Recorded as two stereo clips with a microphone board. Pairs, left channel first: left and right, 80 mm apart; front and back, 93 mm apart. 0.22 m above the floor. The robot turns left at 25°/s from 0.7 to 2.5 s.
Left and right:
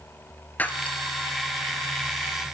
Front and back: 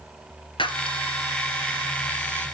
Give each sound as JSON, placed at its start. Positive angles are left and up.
{"t": 0.6, "sound": "breaking glass", "azimuth_deg": 20, "distance_m": 1.3}